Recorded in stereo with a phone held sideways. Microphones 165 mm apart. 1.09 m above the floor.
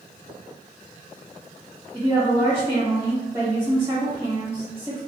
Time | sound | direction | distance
1.9 | a woman speaking | 25° right (ahead or behind) | 1.2 m